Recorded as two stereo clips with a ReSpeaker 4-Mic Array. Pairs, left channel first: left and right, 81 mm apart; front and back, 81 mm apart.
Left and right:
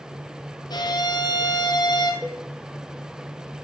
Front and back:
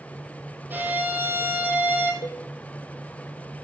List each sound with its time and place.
0.7 s a violin: 115° left, 1.4 m
2.2 s a cowbell: 5° right, 1.5 m